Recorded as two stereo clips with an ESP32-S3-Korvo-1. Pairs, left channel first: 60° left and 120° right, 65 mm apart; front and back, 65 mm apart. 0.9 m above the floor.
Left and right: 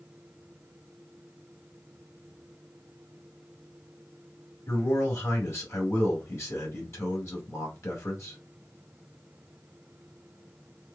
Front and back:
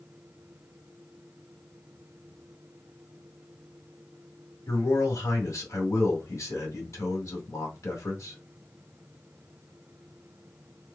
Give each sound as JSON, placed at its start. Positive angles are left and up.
{"t": 4.7, "sound": "a man speaking", "azimuth_deg": 30, "distance_m": 1.7}